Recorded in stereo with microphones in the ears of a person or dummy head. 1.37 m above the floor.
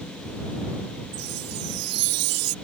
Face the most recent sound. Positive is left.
turn(degrees=-85)